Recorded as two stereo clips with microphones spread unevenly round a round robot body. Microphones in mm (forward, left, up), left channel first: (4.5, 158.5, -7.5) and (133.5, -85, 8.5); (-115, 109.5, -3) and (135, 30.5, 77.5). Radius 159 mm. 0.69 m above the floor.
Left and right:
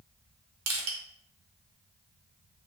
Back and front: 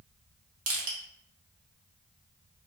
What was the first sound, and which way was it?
Crushing, 55° right.